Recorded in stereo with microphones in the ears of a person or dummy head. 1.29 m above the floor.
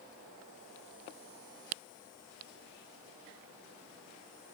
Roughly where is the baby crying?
I don't hear a baby crying.